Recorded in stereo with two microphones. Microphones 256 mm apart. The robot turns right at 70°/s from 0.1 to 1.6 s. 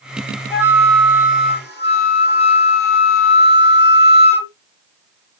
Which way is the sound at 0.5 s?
10° right.